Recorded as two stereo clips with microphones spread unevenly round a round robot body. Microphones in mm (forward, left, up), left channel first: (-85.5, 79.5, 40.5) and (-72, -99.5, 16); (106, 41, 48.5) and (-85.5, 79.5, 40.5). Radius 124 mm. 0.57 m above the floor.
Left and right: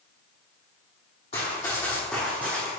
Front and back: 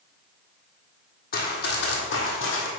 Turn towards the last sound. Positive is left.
turn(degrees=-5)